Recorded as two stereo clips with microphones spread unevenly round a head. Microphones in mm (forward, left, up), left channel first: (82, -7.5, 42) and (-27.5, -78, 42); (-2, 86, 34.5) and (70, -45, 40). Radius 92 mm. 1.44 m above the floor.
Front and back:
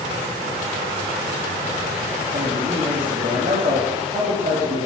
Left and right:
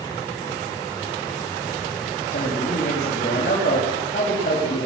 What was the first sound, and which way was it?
A man speaking, 165° left.